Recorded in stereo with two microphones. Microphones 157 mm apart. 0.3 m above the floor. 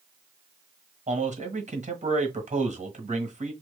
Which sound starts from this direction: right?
A man speaking, at 1.1 s.